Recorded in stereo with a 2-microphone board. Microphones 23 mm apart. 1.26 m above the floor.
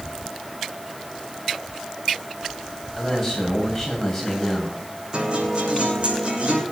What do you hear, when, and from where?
3.0 s a man speaking: 5° left (ahead or behind), 8 m
5.1 s a guitar: 50° right (ahead or behind), 6.5 m